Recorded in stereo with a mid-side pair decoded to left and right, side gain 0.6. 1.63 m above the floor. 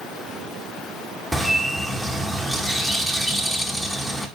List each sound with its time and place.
1.3 s a bird: 5° left, 1.8 m